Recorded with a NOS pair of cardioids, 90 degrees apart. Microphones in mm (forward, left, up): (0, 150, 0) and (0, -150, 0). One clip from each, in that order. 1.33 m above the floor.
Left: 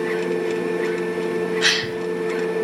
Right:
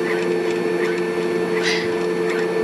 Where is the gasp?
70° left, 6.5 m.